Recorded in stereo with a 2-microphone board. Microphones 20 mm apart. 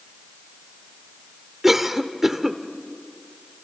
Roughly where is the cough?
Centre.